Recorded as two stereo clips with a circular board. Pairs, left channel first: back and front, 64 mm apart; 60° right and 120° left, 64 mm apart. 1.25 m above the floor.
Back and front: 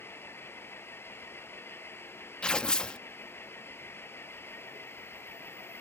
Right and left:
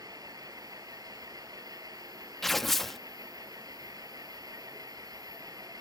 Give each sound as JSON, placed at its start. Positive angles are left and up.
{"t": 0.0, "sound": "an engine running", "azimuth_deg": 125}
{"t": 2.4, "sound": "tearing paper", "azimuth_deg": -140}